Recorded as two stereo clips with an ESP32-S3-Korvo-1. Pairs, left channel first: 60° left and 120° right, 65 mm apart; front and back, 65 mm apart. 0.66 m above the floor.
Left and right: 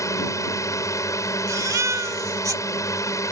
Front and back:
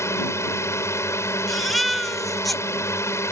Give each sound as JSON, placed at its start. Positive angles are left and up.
{"t": 0.0, "sound": "a drone", "azimuth_deg": 35}
{"t": 1.5, "sound": "a baby crying", "azimuth_deg": -90}